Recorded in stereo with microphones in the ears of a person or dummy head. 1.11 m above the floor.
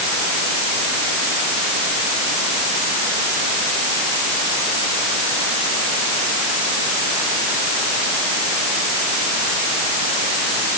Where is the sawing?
I don't hear sawing.